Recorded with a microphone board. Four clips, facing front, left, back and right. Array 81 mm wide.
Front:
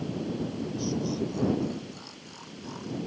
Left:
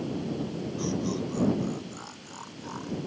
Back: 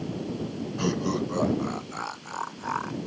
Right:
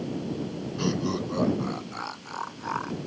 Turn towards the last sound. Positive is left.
turn(degrees=-145)